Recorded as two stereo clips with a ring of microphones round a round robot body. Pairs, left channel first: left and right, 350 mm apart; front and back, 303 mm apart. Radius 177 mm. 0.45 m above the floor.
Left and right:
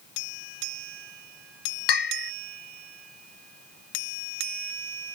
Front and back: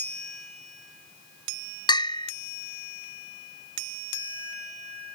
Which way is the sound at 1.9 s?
75° left.